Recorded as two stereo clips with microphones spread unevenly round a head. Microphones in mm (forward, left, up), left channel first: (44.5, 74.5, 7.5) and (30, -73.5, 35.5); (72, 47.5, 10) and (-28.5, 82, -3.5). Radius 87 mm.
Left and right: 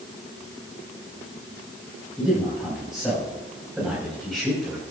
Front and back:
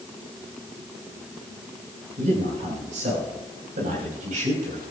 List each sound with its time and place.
2.2 s a man speaking: straight behind, 7.5 m; by 4.8 s 175° left, 5.5 m